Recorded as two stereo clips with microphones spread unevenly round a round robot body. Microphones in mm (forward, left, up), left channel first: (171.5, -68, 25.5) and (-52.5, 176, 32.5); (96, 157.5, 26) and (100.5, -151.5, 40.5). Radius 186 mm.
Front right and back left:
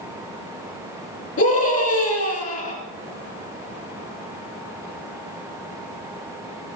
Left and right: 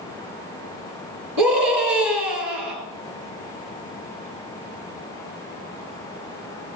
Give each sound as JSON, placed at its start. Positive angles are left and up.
{"t": 1.4, "sound": "a scream", "azimuth_deg": -120, "distance_m": 3.0}